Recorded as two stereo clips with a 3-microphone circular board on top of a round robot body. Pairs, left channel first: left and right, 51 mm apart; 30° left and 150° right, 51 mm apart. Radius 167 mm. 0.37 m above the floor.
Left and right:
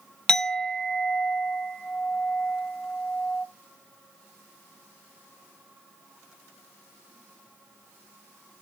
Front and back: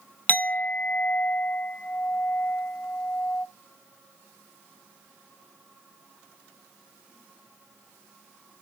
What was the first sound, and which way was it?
A clink, 25° left.